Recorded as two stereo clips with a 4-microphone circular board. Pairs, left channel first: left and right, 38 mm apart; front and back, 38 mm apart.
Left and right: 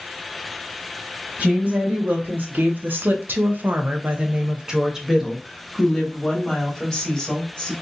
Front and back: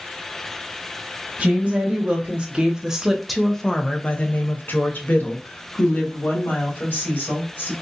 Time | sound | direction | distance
1.4 | a woman speaking | 135° right | 1.4 m